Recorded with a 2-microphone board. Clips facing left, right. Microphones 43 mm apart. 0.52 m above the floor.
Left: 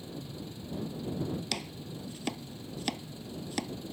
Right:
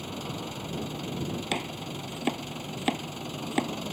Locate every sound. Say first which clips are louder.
0.0 s an engine running: right 7 dB; 65° right (ahead or behind)
1.5 s chopping: right 6 dB; 30° right (ahead or behind)